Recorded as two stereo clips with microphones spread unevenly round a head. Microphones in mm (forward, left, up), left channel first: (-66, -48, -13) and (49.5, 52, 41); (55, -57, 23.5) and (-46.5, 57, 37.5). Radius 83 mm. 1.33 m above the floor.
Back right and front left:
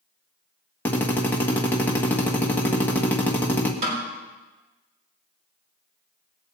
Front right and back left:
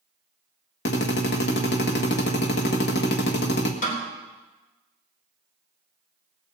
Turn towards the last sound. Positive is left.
turn(degrees=-10)